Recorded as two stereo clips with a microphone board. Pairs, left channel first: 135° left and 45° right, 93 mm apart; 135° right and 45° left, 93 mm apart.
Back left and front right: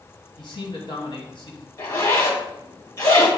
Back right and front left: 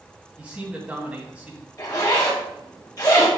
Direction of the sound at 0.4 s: 120° left.